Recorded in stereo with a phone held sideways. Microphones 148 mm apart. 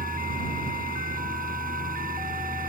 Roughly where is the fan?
Right.